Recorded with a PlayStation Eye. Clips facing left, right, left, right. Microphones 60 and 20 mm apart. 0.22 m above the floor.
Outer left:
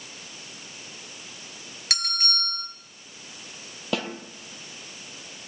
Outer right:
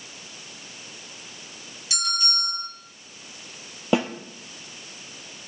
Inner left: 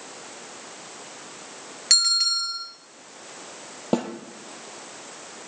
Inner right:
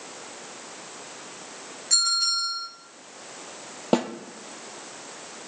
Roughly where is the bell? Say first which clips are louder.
Outer right 2 dB, inner left 3 dB; left.